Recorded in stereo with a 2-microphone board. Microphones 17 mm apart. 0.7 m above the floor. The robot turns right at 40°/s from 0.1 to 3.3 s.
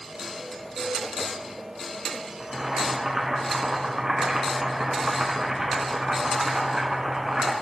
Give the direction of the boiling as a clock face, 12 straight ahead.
6 o'clock.